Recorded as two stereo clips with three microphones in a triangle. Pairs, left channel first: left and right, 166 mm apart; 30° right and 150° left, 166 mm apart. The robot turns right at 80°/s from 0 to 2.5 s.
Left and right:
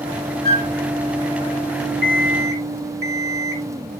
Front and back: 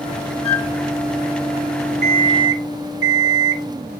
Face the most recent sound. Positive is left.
turn(degrees=-105)